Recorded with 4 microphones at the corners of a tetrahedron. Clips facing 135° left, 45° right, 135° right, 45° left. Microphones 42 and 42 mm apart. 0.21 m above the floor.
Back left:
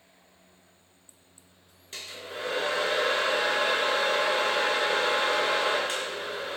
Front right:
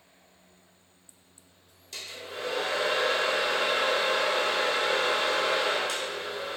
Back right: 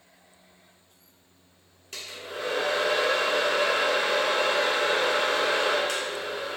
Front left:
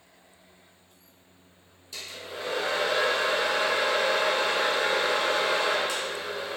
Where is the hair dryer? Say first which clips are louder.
Even, back right 1 dB; 170° right, 0.8 m.